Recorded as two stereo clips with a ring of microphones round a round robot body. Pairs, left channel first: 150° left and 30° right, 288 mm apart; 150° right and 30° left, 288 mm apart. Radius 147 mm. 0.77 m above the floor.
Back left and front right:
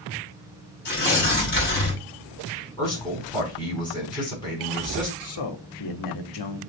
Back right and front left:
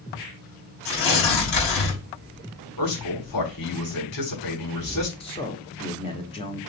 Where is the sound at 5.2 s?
140° left, 1.7 m.